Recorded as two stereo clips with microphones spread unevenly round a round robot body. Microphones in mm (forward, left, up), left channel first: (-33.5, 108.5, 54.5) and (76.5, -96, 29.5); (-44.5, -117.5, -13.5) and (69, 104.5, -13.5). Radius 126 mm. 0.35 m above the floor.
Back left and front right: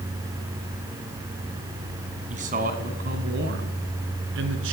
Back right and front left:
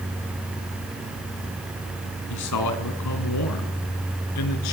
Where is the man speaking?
120° right, 3.5 m; by 4.7 s 95° right, 4.5 m.